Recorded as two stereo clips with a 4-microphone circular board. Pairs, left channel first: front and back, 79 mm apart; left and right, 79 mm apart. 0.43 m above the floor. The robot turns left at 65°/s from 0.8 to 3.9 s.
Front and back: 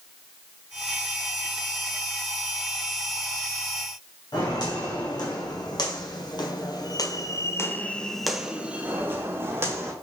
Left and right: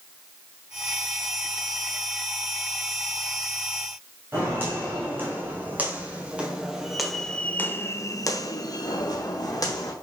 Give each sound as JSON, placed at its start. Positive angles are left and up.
{"t": 4.3, "sound": "footsteps", "azimuth_deg": -30, "distance_m": 1.8}